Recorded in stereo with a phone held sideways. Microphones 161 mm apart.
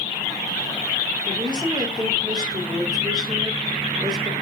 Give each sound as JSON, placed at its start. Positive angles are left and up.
{"t": 1.2, "sound": "a woman speaking", "side_deg": -25, "distance_m": 2.5}